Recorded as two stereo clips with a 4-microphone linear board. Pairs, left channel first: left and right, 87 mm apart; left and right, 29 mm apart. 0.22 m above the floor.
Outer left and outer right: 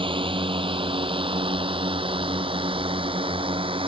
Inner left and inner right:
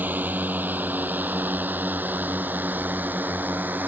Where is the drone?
75° right (ahead or behind); by 3.9 s 80° right.